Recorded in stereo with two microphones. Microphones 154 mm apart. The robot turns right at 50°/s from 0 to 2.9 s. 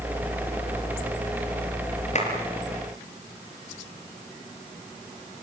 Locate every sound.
2.1 s a clap: 50° left (ahead or behind), 6 m; by 2.3 s 40° left (ahead or behind), 6 m